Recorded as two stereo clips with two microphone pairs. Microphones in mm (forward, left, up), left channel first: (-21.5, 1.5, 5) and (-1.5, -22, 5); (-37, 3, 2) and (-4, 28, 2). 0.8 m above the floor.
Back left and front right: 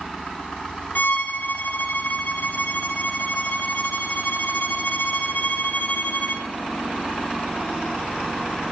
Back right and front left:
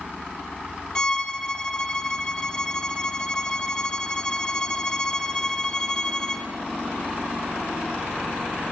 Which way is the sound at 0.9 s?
145° left.